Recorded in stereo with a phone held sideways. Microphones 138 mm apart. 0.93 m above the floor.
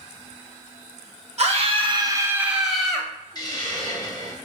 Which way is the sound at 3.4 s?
30° left (ahead or behind).